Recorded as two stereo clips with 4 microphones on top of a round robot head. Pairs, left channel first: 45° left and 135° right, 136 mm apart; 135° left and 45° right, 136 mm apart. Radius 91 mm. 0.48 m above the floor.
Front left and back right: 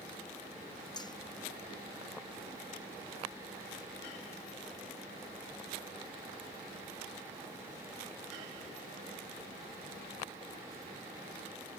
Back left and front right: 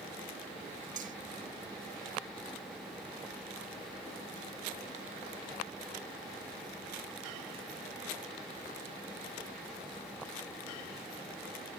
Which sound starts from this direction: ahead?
Cutlery clinking, at 1.0 s.